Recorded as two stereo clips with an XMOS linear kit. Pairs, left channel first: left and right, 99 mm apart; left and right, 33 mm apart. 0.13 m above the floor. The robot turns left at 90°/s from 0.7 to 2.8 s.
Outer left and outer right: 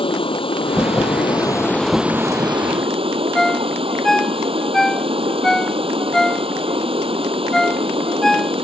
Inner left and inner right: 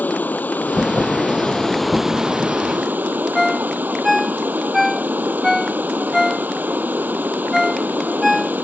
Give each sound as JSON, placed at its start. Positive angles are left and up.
{"t": 0.0, "sound": "running water", "azimuth_deg": 110}
{"t": 3.4, "sound": "a ringtone", "side_deg": 5}